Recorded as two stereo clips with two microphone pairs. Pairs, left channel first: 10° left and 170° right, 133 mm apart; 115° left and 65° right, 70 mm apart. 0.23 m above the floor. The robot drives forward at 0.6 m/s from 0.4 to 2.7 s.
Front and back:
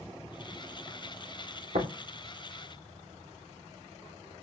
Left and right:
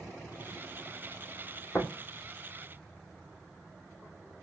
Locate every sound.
1.7 s tapping: straight behind, 4 m